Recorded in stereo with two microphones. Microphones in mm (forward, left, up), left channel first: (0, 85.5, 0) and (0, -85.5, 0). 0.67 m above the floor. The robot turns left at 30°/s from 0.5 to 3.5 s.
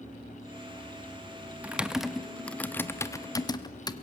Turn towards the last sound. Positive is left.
turn(degrees=25)  # may be behind; listen again after turning